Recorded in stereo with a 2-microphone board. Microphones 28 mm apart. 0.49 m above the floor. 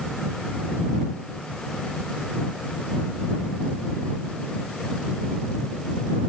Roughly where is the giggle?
No giggle in this recording.